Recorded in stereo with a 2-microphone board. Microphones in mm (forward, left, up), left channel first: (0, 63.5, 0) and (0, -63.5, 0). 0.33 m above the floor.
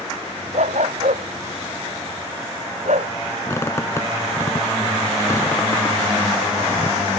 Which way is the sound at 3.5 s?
25° left (ahead or behind).